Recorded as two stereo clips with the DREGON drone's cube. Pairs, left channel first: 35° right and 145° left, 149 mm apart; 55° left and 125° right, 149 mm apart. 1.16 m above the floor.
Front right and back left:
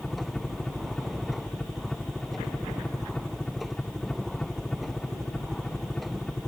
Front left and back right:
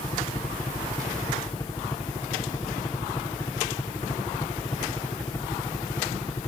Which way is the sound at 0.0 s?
45° left.